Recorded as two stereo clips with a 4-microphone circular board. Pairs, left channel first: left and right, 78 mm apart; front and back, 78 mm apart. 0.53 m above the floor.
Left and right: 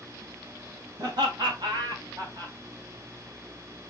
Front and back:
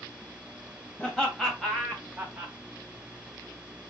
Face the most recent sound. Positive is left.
turn(degrees=-110)